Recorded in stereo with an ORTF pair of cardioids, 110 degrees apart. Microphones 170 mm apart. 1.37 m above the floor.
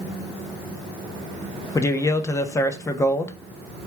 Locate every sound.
1.8 s a man speaking: 20° left, 0.7 m